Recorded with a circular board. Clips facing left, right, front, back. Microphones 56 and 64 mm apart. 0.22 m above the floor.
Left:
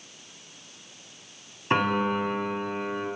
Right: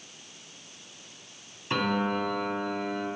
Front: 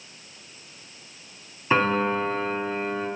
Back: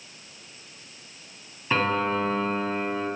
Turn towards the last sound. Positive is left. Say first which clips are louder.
# left 3 dB, front 2 dB
turn(degrees=65)